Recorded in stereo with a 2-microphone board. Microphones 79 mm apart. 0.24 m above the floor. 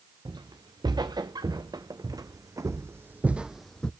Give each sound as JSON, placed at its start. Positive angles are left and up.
{"t": 0.2, "sound": "footsteps", "side_deg": -75, "distance_m": 2.0}